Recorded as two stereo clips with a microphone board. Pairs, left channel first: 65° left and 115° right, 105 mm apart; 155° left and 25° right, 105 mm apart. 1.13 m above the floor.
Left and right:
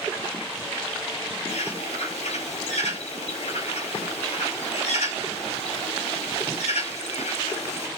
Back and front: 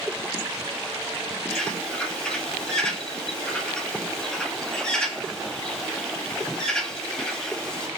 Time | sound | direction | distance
1.5 | a bird | 75° left | 4 m